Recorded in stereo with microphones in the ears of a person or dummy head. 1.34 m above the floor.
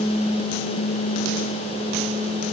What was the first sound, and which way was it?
Only background noise.